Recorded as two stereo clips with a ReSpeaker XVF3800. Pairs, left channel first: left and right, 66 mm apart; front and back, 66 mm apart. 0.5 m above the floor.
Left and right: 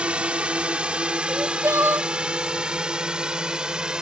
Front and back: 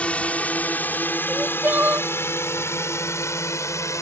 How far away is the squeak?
No squeak in this recording.